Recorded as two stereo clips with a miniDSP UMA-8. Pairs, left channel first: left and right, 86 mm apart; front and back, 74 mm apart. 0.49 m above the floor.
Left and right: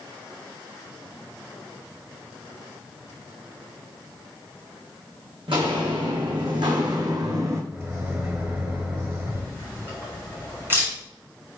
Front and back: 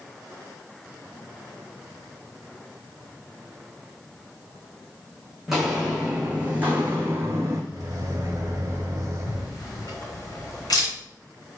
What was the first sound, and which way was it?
Footsteps, 95° right.